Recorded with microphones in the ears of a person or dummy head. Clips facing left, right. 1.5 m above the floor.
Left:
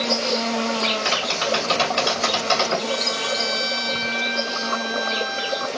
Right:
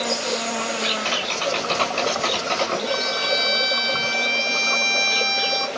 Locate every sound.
0.0 s an insect: 15° right (ahead or behind), 3 m
1.1 s tapping: 15° left (ahead or behind), 2.5 m
2.9 s a violin: 65° right (ahead or behind), 1.0 m